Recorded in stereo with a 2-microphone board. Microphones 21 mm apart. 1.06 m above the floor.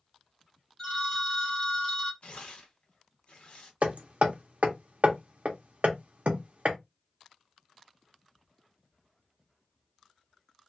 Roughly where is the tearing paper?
Left.